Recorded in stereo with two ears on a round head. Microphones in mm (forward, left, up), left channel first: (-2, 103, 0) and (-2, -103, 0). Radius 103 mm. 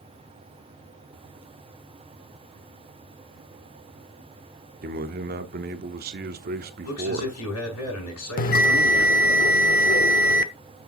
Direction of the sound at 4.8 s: 45° right (ahead or behind).